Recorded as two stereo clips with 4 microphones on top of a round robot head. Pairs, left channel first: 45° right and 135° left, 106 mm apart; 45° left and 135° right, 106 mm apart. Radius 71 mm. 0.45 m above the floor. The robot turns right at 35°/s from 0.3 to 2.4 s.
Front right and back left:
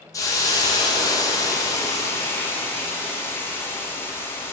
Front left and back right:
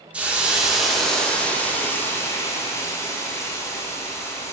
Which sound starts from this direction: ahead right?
A hiss, at 0.1 s.